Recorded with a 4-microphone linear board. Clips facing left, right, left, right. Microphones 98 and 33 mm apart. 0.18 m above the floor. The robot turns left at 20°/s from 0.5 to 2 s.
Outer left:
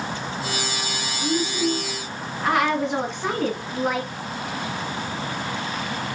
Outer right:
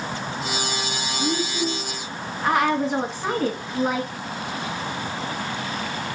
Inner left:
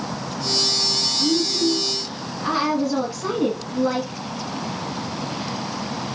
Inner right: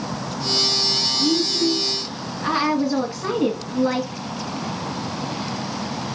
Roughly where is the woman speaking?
Centre.